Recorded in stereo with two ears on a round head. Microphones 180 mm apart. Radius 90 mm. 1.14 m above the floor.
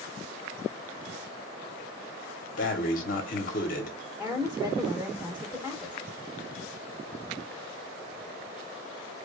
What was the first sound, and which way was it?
Breathing, 45° left (ahead or behind).